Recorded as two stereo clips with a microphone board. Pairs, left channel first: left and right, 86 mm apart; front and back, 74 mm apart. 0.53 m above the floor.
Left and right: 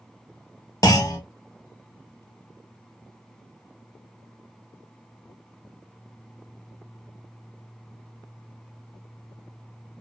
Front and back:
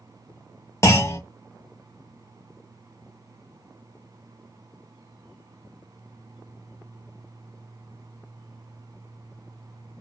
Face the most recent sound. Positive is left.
turn(degrees=45)